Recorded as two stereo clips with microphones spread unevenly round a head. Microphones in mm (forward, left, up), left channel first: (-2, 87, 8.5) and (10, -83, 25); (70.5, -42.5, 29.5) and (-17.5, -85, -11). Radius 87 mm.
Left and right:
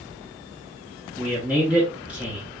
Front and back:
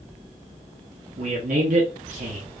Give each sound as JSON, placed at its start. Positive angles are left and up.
{"t": 1.2, "sound": "a man speaking", "azimuth_deg": -165, "distance_m": 0.8}